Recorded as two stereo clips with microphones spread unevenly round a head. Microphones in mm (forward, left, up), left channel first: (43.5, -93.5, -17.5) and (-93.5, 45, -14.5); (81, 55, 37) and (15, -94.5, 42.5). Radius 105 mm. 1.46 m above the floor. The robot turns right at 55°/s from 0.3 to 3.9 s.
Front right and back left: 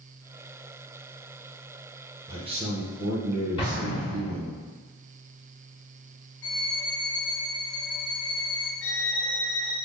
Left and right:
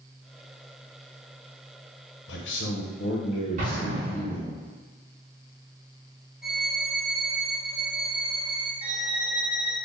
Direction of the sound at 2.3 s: 60° left.